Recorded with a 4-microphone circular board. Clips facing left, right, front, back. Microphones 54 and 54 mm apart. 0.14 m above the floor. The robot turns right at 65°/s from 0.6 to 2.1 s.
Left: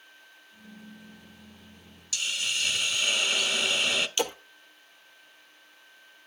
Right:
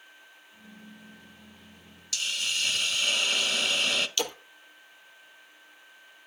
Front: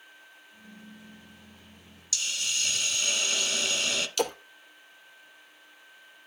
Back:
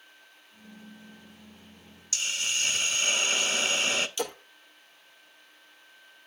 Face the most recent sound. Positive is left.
turn(degrees=20)